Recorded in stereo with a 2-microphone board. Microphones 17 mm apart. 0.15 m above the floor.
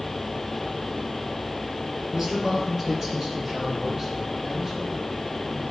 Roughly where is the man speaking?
Right.